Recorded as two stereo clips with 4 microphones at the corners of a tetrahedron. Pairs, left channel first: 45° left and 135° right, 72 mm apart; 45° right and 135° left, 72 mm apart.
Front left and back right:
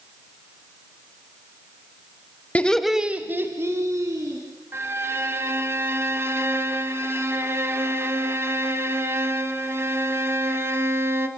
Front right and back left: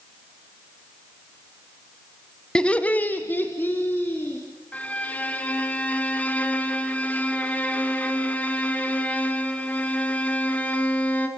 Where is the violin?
105° right, 1.5 m.